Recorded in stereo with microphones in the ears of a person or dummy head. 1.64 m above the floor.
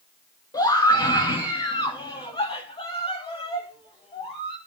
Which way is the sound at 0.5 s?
15° left (ahead or behind).